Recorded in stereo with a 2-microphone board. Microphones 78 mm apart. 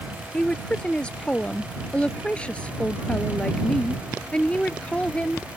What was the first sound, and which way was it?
A woman speaking, 15° left (ahead or behind).